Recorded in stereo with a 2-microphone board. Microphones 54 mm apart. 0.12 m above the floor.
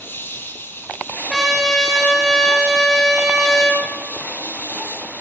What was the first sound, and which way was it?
An insect, 40° left (ahead or behind).